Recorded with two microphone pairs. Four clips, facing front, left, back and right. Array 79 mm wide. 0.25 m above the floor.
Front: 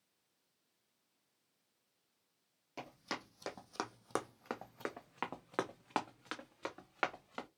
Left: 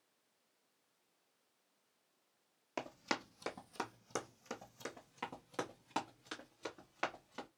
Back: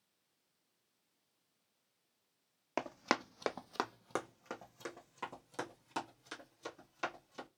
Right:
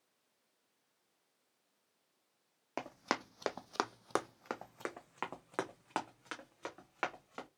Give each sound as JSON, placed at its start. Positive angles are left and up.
{"t": 2.8, "sound": "running footsteps", "azimuth_deg": -160, "distance_m": 0.7}